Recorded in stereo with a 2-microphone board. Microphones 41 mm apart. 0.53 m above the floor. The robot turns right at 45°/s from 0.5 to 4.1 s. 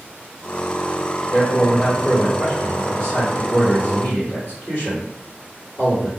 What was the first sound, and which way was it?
A man speaking, 45° right.